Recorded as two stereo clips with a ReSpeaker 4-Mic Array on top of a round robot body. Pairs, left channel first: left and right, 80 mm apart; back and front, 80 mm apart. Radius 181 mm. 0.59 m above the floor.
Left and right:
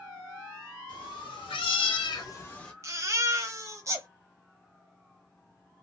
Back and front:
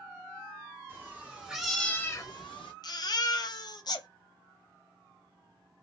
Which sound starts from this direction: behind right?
A baby crying, at 2.8 s.